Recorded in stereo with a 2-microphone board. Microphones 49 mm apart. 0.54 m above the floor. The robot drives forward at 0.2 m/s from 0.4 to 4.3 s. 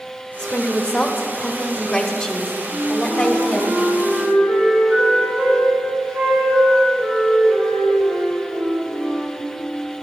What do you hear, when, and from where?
0.4 s a woman speaking: 15° left (ahead or behind), 1.0 m; by 3.7 s 10° left (ahead or behind), 1.4 m
2.7 s a flute: 65° right (ahead or behind), 4 m